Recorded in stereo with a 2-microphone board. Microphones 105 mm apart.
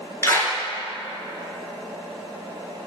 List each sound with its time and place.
0.2 s a clap: 25° left (ahead or behind), 1.8 m